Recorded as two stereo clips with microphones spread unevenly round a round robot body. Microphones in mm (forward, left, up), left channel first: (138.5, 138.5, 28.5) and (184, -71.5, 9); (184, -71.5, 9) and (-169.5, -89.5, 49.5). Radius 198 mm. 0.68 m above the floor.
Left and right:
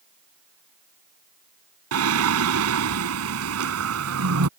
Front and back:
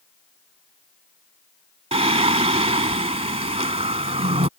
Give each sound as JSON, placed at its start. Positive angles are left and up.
{"t": 1.9, "sound": "singing", "azimuth_deg": -105}